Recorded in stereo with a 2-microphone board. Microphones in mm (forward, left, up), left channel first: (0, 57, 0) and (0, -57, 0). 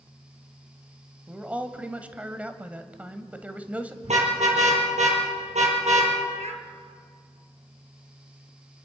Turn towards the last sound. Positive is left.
turn(degrees=-75)  # may be behind; listen again after turning